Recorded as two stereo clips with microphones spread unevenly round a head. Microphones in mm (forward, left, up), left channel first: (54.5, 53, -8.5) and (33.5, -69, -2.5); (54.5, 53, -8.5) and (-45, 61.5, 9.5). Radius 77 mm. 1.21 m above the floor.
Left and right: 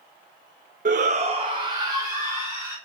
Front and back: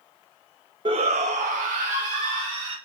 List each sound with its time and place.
0.8 s a shout: 125° right, 0.5 m; by 2.8 s 175° right, 2 m